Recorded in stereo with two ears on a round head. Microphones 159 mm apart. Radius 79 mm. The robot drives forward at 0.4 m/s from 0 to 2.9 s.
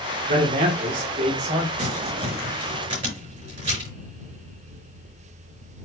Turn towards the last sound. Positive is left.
turn(degrees=-35)  # may be behind; listen again after turning